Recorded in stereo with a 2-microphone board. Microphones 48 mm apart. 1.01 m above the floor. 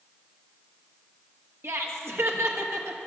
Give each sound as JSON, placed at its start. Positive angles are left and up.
{"t": 1.6, "sound": "laughter", "side_deg": -70, "distance_m": 1.4}